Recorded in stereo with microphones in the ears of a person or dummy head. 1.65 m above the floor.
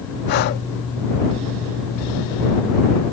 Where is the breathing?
50° left (ahead or behind).